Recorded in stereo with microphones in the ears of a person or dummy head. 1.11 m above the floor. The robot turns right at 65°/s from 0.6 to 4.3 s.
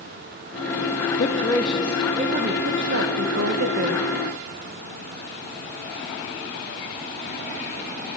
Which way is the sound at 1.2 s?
145° left.